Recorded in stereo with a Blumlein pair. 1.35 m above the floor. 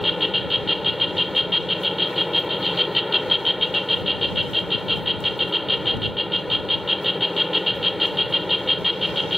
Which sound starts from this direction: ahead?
An insect, at 0.0 s.